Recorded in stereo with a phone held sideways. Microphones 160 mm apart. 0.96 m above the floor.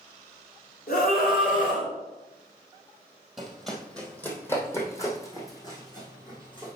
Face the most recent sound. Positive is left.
turn(degrees=30)  # may be behind; listen again after turning